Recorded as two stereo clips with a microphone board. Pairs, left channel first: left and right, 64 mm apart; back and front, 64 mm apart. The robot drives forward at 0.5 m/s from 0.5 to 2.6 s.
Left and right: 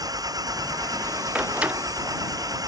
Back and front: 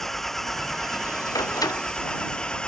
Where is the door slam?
160° right.